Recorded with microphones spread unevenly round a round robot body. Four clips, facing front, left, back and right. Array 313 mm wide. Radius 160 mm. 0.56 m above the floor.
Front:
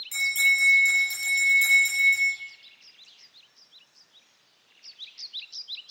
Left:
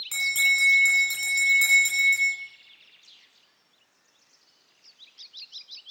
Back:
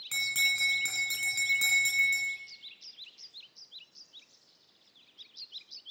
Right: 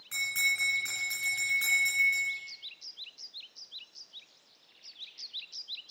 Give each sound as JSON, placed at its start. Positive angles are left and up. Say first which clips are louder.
{"t": 0.1, "sound": "a bell", "louder": "left 7 dB, front 7 dB", "azimuth_deg": 160, "distance_m": 2.5}